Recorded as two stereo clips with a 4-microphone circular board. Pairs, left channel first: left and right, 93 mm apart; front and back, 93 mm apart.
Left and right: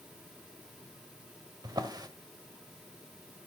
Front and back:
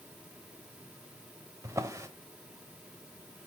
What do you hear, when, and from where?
1.6 s a drawer: 130° right, 1.2 m